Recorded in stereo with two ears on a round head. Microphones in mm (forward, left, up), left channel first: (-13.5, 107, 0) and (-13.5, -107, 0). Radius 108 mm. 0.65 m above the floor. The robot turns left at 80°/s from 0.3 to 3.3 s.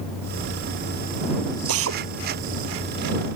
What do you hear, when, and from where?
1.7 s a drill: 80° right; by 2.0 s 55° right (ahead or behind)